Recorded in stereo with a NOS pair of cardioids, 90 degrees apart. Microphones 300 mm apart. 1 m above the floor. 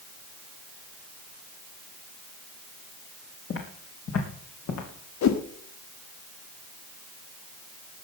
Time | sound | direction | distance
3.5 | footsteps | 45° left | 4 m
5.2 | a whoosh | 65° left | 1.4 m